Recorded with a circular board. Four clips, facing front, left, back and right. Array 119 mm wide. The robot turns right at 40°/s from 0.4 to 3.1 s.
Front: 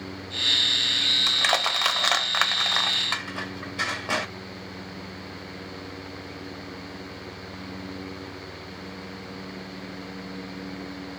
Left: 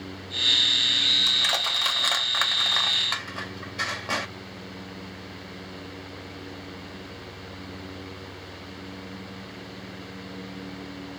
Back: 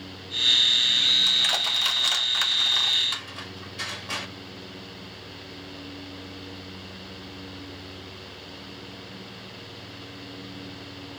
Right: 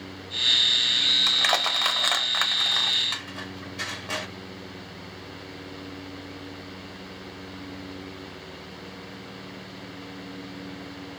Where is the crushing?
45° right, 0.8 m; by 4.3 s 30° left, 0.8 m.